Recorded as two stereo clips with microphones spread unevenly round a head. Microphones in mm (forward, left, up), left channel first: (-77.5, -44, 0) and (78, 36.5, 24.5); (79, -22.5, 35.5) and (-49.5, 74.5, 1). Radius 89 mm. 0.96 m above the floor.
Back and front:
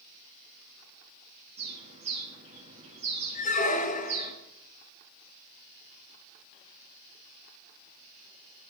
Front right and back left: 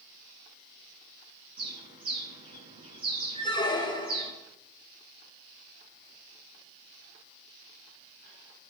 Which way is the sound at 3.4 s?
105° right.